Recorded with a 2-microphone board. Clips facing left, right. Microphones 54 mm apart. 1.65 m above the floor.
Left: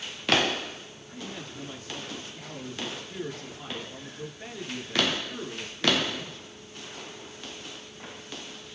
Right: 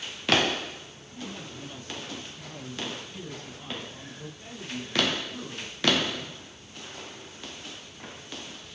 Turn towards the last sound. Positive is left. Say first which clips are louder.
# even
turn(degrees=90)